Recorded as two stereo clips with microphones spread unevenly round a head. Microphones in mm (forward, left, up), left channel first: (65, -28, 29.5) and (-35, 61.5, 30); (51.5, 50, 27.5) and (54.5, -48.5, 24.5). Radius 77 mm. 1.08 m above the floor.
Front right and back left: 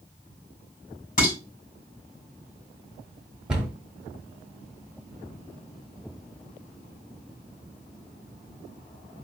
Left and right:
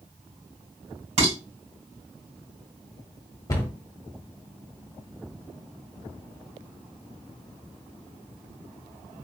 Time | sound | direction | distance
1.2 | dishes clattering | 80° right | 3 m
3.5 | a cupboard door | 55° left | 0.9 m